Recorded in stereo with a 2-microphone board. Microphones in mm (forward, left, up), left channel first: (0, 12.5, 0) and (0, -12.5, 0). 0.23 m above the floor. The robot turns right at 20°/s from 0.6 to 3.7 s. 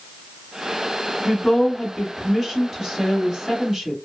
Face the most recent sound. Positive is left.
turn(degrees=-20)  # may be behind; listen again after turning